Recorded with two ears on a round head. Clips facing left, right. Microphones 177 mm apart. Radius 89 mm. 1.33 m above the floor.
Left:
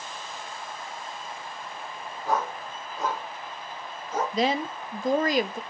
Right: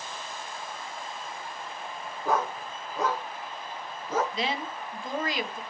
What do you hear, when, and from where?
2.2 s a dog barking: 50° right (ahead or behind), 5.5 m; by 4.2 s 65° right (ahead or behind), 6 m
4.3 s a woman speaking: 35° left (ahead or behind), 1.3 m